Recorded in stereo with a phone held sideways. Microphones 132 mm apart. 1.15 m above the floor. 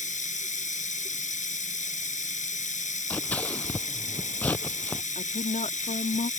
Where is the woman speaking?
70° left (ahead or behind).